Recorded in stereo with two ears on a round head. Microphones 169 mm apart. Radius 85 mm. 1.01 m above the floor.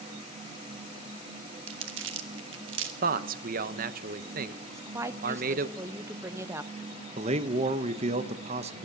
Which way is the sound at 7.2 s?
35° right (ahead or behind).